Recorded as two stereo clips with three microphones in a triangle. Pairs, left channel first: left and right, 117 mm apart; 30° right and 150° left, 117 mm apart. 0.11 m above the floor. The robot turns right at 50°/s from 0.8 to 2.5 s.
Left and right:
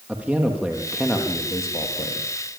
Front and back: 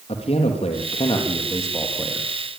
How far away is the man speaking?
About 4.5 m.